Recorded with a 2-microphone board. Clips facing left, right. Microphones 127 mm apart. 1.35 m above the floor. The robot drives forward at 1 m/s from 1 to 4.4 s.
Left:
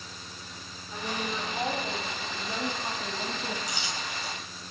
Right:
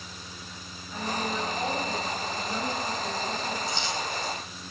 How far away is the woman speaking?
About 3.5 m.